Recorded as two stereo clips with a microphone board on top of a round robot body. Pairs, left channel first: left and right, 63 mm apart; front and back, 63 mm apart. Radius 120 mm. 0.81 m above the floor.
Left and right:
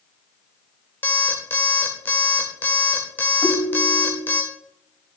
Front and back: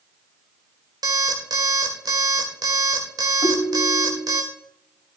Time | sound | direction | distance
1.0 | an alarm clock | 150° left | 1.9 m
3.4 | a ringtone | 35° right | 1.5 m